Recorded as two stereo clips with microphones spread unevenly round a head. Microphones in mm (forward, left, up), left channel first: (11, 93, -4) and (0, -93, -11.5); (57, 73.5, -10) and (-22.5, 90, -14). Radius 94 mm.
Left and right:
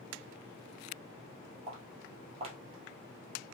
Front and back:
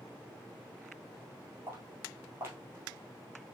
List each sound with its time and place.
1.7 s footsteps: 140° right, 1.9 m